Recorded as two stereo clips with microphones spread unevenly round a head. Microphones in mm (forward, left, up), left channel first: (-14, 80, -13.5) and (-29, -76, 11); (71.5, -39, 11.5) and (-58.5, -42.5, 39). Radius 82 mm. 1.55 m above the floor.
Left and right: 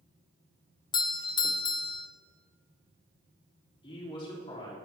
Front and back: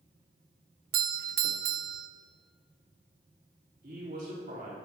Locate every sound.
0.9 s a doorbell: 145° left, 0.5 m
3.8 s a woman speaking: 145° left, 4 m